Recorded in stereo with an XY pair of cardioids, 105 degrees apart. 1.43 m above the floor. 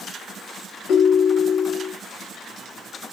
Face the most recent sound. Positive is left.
turn(degrees=70)